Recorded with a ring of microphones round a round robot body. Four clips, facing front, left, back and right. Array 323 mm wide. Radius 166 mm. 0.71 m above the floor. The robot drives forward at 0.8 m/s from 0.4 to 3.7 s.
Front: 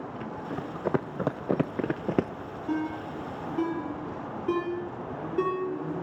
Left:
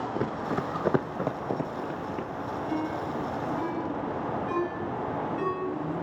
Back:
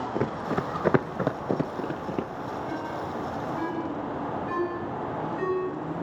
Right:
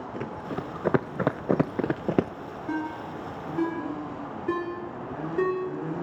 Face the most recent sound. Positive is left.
turn(degrees=-45)